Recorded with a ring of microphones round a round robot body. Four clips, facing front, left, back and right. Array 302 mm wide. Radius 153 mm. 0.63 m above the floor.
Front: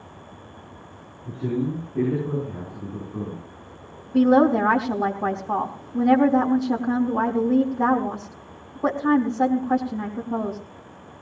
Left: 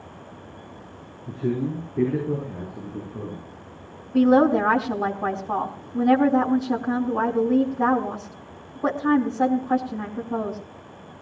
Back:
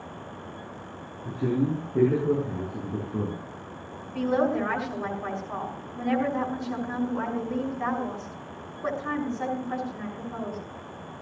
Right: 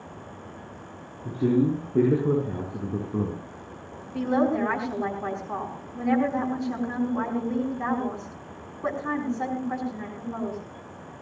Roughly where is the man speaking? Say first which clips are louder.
Right 4 dB, even; right.